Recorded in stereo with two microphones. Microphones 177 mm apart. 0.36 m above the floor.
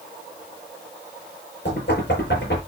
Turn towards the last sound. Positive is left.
turn(degrees=80)